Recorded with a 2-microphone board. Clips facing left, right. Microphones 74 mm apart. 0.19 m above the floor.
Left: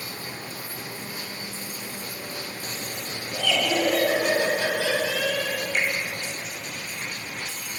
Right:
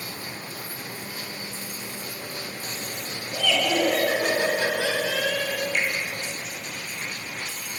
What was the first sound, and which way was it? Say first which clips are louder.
Laughter: right 1 dB; 15° left (ahead or behind).